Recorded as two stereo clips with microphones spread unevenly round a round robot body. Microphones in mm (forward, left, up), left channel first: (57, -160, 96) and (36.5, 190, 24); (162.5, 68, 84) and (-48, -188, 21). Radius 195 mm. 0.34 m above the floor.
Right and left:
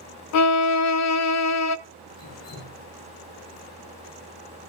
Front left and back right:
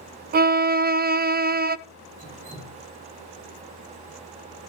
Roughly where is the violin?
Behind right.